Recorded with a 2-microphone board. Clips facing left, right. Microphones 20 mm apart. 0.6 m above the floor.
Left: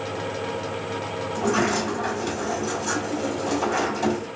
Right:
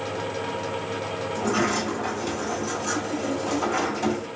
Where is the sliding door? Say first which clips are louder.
Left 2 dB; 10° left (ahead or behind), 1.9 m.